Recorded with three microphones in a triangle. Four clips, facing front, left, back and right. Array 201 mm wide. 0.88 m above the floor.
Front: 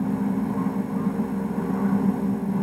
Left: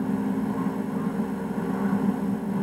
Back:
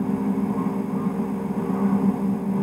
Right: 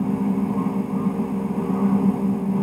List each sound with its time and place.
Only background noise.